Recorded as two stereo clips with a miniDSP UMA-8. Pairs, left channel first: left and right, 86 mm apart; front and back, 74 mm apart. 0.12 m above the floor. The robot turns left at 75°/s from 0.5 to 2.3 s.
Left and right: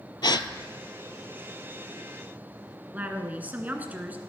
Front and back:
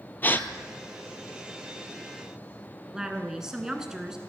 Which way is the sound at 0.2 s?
60° left.